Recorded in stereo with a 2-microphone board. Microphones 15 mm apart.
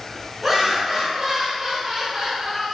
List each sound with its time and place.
0.4 s laughter: centre (ahead or behind), 1.6 m; by 2.7 s 35° right (ahead or behind), 1.7 m